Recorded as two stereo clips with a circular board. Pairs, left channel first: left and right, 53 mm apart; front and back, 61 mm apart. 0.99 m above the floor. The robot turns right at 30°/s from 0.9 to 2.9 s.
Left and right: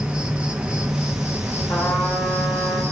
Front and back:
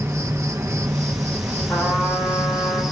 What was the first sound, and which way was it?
An insect, 155° right.